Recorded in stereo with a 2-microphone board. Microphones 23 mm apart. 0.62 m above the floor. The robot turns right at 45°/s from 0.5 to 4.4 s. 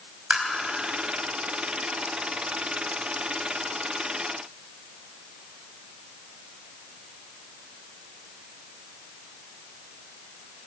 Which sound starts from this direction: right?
Tapping, at 0.3 s.